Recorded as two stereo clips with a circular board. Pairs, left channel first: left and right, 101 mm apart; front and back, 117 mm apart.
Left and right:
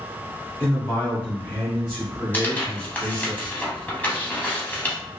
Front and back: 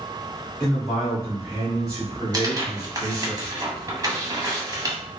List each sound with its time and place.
0.6 s a man speaking: 65° left, 1.2 m; by 3.3 s 175° left, 1.9 m
2.3 s tearing paper: 150° left, 0.7 m